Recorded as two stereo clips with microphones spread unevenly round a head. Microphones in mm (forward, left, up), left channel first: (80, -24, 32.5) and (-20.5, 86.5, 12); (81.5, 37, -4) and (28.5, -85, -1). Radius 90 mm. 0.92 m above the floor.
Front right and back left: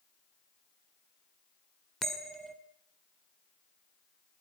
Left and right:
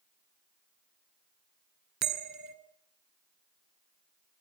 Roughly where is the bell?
Behind right.